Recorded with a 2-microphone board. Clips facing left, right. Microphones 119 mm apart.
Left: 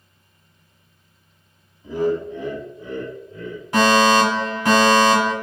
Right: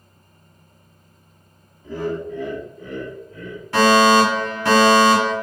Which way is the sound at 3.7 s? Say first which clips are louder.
Right 2 dB; 20° left (ahead or behind).